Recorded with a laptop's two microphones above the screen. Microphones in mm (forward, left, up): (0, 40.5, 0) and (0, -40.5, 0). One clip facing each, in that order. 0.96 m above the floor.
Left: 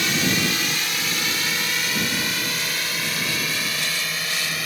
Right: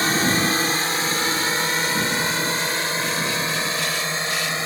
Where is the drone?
35° right (ahead or behind); by 4.7 s 30° right (ahead or behind).